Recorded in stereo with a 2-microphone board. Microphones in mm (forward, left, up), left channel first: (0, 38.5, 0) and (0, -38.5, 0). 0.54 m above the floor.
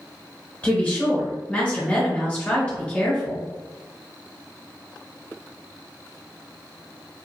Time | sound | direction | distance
0.6 | a woman speaking | 15° left (ahead or behind) | 1.7 m